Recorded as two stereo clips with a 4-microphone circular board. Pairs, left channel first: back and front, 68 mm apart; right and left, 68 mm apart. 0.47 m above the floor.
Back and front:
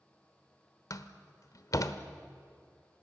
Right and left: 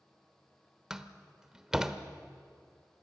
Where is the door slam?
170° left, 1.1 m.